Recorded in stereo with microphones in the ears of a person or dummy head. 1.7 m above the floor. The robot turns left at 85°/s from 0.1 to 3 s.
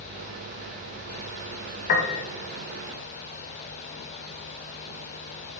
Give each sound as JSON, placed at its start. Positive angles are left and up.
{"t": 1.9, "sound": "a piano", "azimuth_deg": 110, "distance_m": 0.8}